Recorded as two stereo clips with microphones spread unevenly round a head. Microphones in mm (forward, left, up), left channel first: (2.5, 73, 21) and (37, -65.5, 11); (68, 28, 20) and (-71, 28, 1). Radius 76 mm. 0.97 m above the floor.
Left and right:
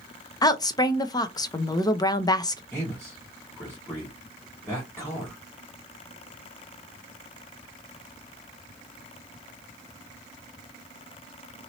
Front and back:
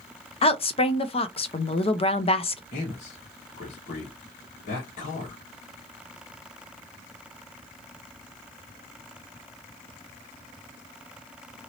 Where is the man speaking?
25° left, 1.6 m.